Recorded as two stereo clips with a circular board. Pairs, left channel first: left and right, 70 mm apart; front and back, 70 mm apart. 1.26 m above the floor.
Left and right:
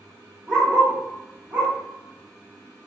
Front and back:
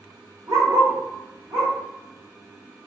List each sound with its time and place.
0.5 s a dog barking: 155° right, 1.8 m; by 1.7 s 125° right, 1.6 m